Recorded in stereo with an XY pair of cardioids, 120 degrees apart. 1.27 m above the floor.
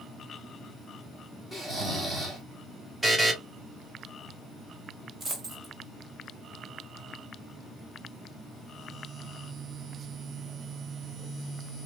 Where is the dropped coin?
35° right, 2.5 m.